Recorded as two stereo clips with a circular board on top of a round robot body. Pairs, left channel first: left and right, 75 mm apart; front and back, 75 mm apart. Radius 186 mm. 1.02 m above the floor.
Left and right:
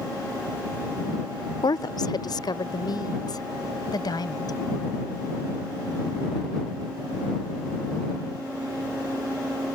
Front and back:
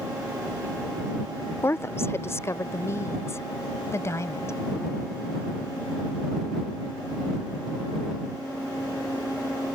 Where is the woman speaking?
60° left; by 4.6 s 55° left.